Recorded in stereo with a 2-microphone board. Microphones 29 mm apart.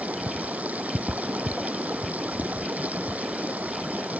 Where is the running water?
65° right (ahead or behind).